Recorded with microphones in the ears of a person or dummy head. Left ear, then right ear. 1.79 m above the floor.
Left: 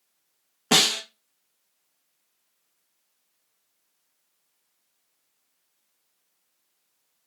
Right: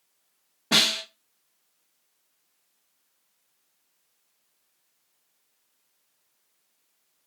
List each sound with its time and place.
0.7 s a snare drum: 55° left (ahead or behind), 0.6 m